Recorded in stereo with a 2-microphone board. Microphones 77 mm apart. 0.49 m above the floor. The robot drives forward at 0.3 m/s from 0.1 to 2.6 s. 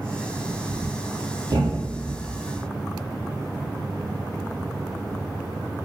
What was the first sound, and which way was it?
A thud, 65° right (ahead or behind).